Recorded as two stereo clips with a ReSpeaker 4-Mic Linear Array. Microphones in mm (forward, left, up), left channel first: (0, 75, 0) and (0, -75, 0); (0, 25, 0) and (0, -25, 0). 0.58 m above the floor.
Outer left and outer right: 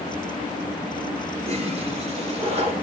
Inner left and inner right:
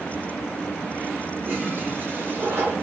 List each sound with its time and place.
1.4 s a toilet flushing: 45° right (ahead or behind), 2 m